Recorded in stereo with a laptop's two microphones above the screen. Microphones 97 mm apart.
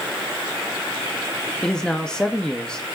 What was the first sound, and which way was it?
A man speaking, 5° left (ahead or behind).